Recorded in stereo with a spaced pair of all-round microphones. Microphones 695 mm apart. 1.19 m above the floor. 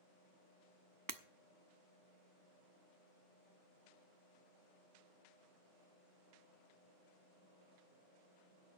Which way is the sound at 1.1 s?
30° right (ahead or behind).